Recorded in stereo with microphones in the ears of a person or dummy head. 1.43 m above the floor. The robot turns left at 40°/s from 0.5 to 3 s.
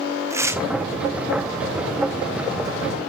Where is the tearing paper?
15° right (ahead or behind), 0.8 m; by 0.6 s 10° right (ahead or behind), 0.8 m.